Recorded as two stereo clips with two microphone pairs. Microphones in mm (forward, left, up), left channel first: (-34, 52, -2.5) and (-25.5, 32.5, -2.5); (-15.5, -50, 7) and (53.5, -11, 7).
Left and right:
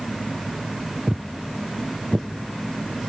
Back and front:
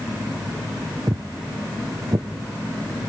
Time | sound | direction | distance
1.1 | footsteps | 5° left | 0.5 m